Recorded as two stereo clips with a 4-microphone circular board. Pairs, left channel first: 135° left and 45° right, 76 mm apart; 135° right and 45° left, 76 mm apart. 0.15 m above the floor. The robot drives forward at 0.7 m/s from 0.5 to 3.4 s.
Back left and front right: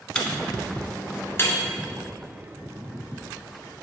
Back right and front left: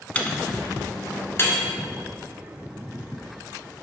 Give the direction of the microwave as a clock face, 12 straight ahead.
6 o'clock.